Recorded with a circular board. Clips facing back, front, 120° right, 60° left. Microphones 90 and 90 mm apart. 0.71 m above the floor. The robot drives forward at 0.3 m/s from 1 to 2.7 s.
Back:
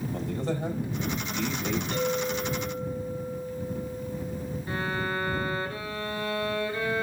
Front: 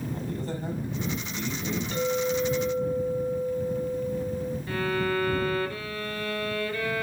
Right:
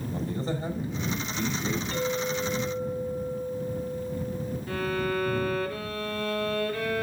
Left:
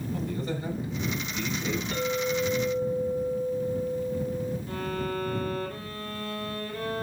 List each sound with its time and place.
0.1 s a man speaking: straight behind, 4.5 m
1.9 s a clink: 135° left, 6 m
4.7 s a violin: 115° right, 1.8 m